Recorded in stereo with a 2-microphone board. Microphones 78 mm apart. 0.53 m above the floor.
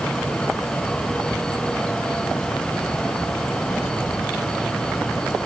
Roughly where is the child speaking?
No child speaking in this recording.